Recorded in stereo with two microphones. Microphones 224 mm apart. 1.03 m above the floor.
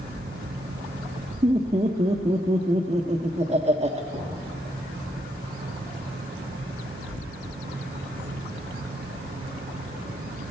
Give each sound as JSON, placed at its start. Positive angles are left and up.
{"t": 1.4, "sound": "laughter", "side_deg": -30, "distance_m": 0.6}
{"t": 4.1, "sound": "knocking", "side_deg": -20, "distance_m": 5.5}